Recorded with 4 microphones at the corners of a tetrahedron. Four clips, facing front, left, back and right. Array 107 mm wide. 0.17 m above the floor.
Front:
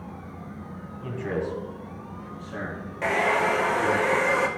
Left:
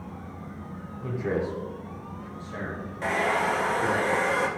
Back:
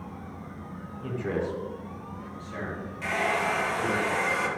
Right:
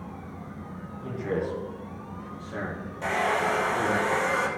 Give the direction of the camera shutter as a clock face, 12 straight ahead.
No camera shutter in this recording.